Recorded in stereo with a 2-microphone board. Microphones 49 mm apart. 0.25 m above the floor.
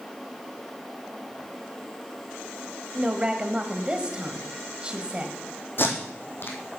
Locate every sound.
2.9 s a woman speaking: 20° right (ahead or behind), 1.0 m
5.8 s tape being pulled: 45° left (ahead or behind), 1.9 m